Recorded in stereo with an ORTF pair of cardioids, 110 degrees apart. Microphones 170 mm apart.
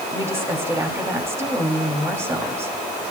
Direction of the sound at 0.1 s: 15° right.